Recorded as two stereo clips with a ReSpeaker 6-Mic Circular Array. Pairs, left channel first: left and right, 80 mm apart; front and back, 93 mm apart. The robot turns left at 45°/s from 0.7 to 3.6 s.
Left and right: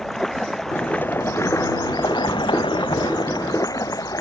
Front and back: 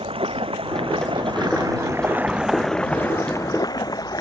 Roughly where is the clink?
No clink in this recording.